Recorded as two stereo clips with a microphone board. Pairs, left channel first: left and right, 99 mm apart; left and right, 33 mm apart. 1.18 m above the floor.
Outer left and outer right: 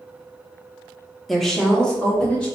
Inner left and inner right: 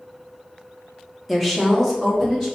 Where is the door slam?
No door slam in this recording.